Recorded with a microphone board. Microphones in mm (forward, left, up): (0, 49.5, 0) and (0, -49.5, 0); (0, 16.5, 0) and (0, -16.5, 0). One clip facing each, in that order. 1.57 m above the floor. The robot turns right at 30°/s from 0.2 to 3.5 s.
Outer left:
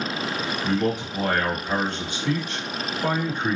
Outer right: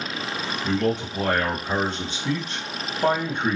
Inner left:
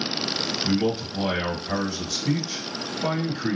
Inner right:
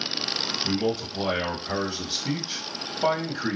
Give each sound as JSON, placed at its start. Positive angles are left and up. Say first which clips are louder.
{"t": 0.6, "sound": "a man speaking", "louder": "outer right 1 dB, inner left 3 dB", "azimuth_deg": 160, "distance_m": 1.7}